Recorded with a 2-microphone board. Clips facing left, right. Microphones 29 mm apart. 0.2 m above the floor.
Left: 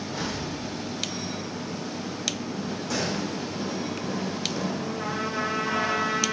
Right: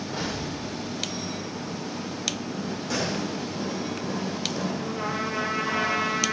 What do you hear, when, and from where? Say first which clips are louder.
0.1 s an explosion: even; 30° right (ahead or behind), 8.5 m
2.9 s a gunshot: right 1 dB; 10° right (ahead or behind), 9 m
4.8 s a trumpet: right 1 dB; 35° right (ahead or behind), 6 m